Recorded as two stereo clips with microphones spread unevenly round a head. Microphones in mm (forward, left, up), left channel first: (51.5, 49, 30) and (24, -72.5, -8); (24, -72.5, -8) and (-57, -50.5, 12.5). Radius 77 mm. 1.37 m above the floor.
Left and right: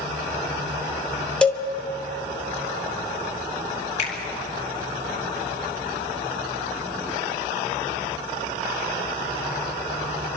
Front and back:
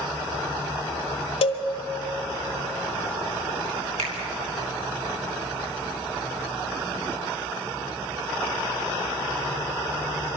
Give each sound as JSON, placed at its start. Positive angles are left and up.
{"t": 1.4, "sound": "a cowbell", "azimuth_deg": 0, "distance_m": 1.9}
{"t": 4.0, "sound": "a finger snap", "azimuth_deg": 120, "distance_m": 4.0}